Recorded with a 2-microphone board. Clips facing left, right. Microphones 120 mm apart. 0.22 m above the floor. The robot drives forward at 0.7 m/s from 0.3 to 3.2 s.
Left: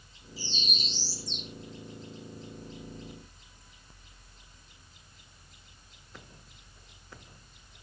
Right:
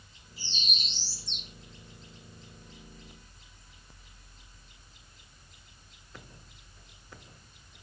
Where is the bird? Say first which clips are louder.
Left 4 dB; 60° right (ahead or behind), 7.5 m; by 1.5 s 65° right (ahead or behind), 7 m.